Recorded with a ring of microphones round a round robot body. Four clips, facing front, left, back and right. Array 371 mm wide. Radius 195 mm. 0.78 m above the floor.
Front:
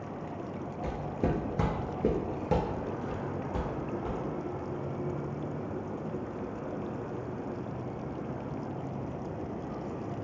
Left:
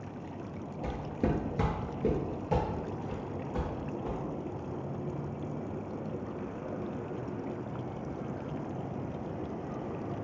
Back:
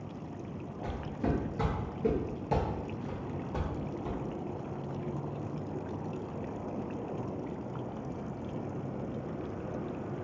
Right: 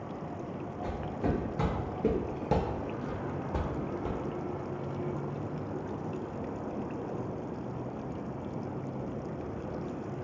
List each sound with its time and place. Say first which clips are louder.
0.8 s footsteps: left 1 dB, front 2 dB; 50° left, 1.1 m; by 4.2 s 85° right, 1.6 m